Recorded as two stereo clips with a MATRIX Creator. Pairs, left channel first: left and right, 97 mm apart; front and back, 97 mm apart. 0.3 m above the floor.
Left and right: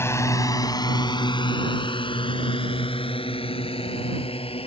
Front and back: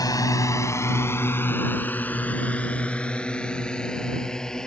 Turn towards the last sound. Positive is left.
turn(degrees=85)